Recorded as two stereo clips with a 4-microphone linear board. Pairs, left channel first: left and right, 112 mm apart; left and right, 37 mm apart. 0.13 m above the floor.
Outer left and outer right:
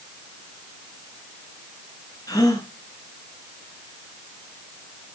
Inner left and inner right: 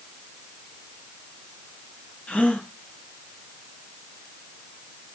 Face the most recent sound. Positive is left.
turn(degrees=35)  # may be behind; listen again after turning